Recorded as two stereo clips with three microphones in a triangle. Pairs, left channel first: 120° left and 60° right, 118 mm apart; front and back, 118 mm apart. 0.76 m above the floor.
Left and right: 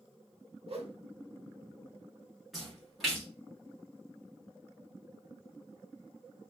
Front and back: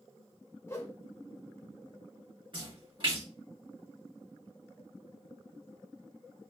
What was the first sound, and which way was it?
A whoosh, 65° right.